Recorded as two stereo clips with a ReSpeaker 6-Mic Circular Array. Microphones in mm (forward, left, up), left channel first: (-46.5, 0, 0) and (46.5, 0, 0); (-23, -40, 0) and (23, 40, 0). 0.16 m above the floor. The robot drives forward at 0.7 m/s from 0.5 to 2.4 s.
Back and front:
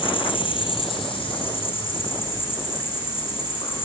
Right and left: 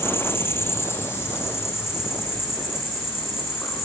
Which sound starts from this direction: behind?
An insect, at 0.0 s.